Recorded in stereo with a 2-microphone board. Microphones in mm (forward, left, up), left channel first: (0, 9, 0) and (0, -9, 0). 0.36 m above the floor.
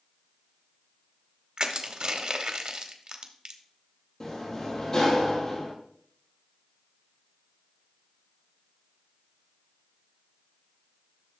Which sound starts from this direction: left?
A sliding door, at 4.2 s.